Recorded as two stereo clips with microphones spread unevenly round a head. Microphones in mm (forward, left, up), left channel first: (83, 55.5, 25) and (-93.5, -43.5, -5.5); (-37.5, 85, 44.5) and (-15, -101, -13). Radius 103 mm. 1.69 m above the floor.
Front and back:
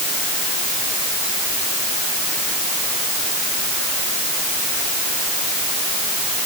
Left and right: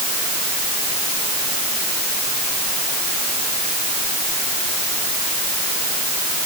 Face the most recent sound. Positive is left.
No sound to turn to.